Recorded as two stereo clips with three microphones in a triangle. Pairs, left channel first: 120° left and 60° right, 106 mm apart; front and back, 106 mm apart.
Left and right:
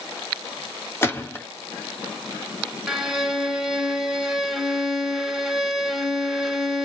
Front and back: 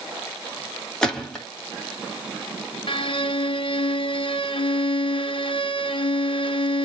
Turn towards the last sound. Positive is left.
turn(degrees=25)